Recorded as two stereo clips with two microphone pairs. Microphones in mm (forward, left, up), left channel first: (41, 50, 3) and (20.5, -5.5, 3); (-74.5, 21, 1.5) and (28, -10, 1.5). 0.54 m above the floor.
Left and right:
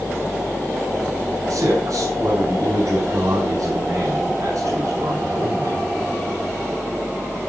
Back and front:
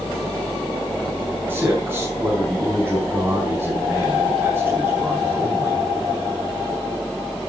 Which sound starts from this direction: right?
A man speaking, at 1.5 s.